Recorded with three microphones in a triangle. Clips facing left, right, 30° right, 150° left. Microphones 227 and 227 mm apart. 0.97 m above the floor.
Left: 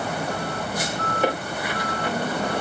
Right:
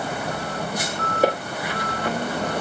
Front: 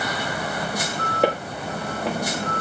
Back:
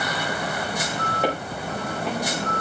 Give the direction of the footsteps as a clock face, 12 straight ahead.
1 o'clock.